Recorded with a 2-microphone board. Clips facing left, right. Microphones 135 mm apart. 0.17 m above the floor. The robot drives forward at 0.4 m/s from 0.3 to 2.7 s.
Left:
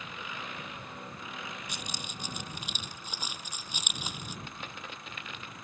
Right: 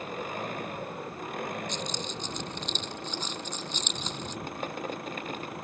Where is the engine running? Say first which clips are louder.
Right 8 dB; 45° right (ahead or behind); by 5.7 s 55° right (ahead or behind).